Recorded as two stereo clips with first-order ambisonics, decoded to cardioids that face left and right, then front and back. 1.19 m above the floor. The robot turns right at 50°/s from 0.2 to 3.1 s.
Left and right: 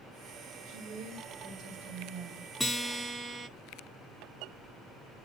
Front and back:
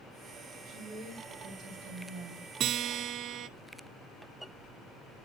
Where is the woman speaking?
115° right, 3.5 m; by 2.5 s 20° right, 3.5 m.